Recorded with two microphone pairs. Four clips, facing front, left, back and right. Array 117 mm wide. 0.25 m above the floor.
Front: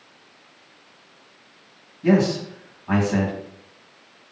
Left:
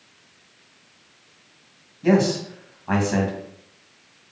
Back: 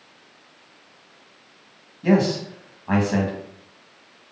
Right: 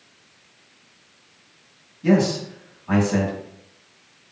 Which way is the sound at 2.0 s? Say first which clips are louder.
Even, front 1 dB; 120° left.